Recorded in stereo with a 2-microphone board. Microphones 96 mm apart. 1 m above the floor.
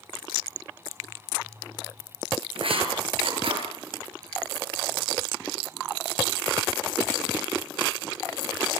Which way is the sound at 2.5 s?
70° right (ahead or behind).